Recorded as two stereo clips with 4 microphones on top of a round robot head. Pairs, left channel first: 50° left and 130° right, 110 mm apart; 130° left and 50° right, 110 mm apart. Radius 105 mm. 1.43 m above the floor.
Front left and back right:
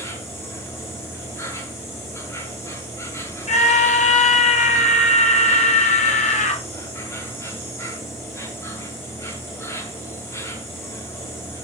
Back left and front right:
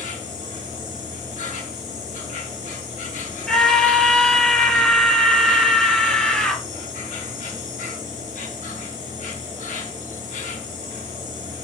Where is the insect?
120° left, 4.5 m.